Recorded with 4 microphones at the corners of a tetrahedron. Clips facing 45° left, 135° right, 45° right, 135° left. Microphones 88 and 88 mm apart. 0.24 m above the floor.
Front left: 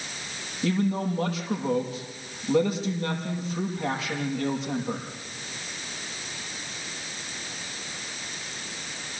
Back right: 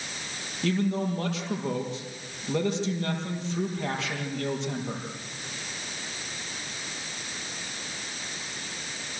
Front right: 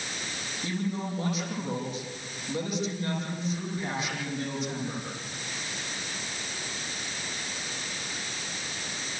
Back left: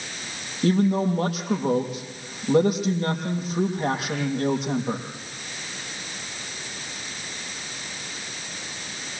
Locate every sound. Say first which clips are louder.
0.6 s a man speaking: front left 1 dB, back left 12 dB; 130° left, 7 m